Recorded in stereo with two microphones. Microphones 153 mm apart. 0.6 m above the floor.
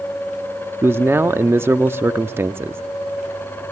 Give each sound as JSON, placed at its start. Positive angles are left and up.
{"t": 0.8, "sound": "a man speaking", "side_deg": -15, "distance_m": 0.7}